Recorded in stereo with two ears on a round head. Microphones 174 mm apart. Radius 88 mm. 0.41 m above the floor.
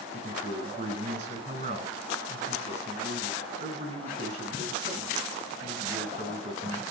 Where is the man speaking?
35° right (ahead or behind), 4.5 m.